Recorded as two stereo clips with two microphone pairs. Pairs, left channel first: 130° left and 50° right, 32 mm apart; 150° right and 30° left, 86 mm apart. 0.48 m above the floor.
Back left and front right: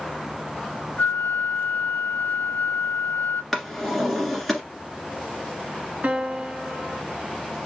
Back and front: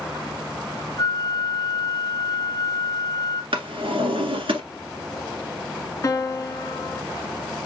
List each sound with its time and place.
1.0 s a flute: 160° left, 0.7 m
3.5 s a drawer: 45° left, 1.5 m
6.0 s a piano: 95° right, 0.7 m